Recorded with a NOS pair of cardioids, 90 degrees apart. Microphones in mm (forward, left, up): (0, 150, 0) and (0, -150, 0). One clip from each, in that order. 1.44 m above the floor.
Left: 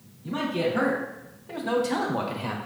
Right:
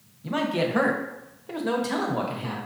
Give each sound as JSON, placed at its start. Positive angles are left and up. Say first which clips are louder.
{"t": 0.2, "sound": "a man speaking", "louder": "right 1 dB", "azimuth_deg": -55, "distance_m": 1.3}